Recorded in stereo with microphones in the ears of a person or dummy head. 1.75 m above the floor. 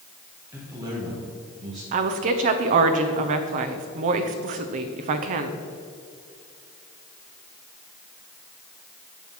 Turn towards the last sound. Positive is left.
turn(degrees=-40)  # may be behind; listen again after turning